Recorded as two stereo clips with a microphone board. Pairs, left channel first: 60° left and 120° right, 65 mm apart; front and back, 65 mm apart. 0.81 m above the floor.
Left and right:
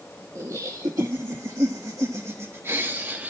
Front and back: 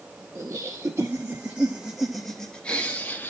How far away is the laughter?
About 1.2 m.